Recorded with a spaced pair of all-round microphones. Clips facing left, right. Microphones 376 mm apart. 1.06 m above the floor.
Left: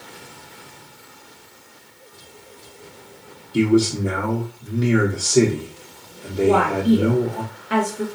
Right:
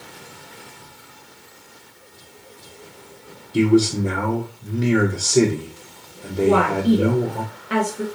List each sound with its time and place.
3.5 s a man speaking: centre (ahead or behind), 0.6 m
6.4 s a woman speaking: centre (ahead or behind), 0.9 m